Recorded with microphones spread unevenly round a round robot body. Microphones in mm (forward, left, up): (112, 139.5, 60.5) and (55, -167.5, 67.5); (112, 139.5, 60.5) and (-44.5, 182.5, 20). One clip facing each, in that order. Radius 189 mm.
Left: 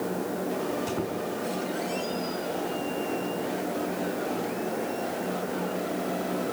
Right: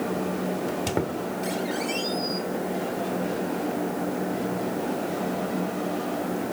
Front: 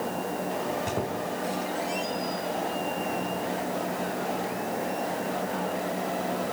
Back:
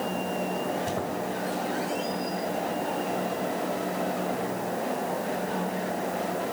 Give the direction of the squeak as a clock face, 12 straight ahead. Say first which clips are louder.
Right 2 dB, even; 3 o'clock.